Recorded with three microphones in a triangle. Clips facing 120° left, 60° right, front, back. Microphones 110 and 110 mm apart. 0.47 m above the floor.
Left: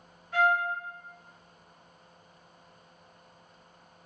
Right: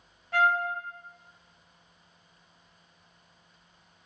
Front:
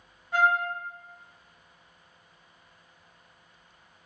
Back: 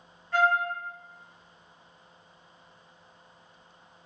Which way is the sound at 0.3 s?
75° right.